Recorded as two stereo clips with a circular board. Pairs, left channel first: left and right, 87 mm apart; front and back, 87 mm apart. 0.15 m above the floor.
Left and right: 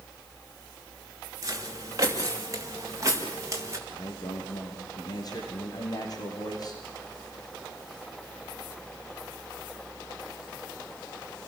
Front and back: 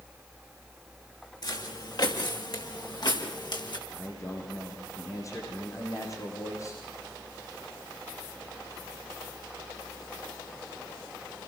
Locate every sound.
1.4 s footsteps: 35° right, 7 m
3.9 s a man speaking: 50° left, 7.5 m